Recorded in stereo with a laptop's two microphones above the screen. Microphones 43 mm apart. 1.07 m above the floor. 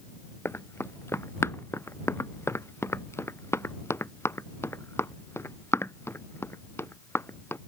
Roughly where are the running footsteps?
Left.